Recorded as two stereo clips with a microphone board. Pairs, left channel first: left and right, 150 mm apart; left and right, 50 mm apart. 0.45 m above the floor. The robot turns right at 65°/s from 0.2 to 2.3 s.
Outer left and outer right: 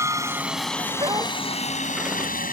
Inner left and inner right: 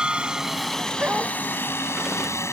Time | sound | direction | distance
0.0 | a helicopter | 20° right (ahead or behind) | ?
1.0 | a dog barking | 35° right (ahead or behind) | ?